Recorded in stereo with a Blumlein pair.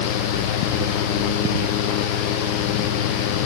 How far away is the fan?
About 0.8 m.